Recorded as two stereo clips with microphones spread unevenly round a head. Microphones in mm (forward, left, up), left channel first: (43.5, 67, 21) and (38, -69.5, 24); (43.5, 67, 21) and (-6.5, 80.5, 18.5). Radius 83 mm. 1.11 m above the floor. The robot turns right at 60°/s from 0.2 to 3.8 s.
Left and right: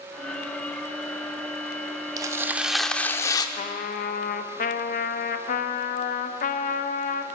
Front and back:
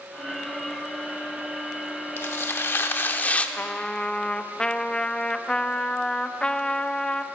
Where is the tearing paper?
40° right, 0.8 m; by 3.5 s 35° left, 0.8 m.